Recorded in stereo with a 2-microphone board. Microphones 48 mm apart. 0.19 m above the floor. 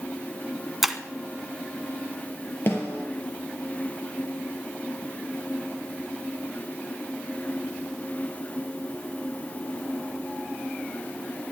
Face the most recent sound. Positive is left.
turn(degrees=50)  # may be behind; listen again after turning